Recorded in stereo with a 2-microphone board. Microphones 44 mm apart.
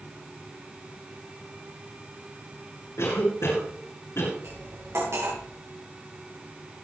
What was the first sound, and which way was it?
A cough, 75° left (ahead or behind).